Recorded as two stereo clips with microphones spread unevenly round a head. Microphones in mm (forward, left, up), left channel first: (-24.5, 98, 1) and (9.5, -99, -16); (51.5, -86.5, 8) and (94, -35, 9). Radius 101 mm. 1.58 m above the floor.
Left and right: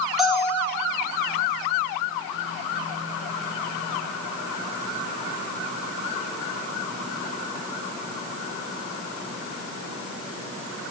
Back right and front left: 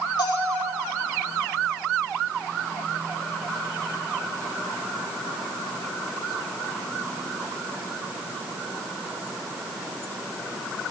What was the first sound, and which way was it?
A bell, 170° right.